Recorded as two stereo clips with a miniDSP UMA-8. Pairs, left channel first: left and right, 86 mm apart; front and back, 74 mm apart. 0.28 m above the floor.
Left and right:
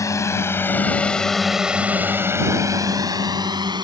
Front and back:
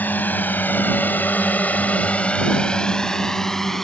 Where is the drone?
60° left; by 3.9 s 85° right.